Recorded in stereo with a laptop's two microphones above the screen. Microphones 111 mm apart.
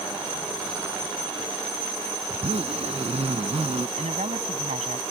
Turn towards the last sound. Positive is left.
turn(degrees=-85)